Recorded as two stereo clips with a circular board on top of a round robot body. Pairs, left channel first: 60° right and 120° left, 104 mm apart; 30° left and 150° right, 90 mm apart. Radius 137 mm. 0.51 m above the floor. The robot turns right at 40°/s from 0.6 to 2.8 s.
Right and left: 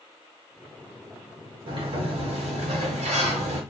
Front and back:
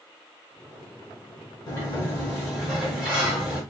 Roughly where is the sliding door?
Left.